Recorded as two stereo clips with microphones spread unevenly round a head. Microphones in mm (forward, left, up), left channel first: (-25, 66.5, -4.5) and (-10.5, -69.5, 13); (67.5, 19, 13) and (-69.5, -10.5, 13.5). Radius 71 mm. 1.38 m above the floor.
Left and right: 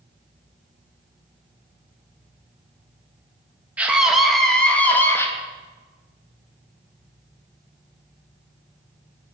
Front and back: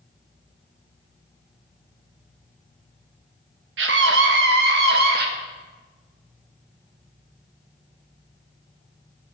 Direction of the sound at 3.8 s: 165° right.